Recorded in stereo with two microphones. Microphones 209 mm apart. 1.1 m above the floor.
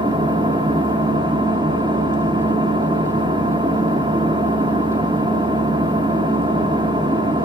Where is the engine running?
20° right (ahead or behind), 1.9 m.